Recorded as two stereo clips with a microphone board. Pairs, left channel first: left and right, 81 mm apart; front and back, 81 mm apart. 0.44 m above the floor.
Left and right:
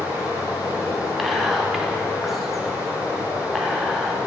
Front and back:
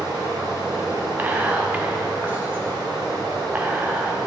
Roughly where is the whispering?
Behind.